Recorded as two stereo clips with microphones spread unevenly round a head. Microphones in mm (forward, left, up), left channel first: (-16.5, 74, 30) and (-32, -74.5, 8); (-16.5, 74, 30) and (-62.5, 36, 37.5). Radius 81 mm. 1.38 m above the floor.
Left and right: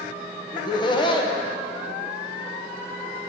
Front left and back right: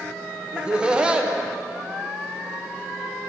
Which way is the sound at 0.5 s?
145° left.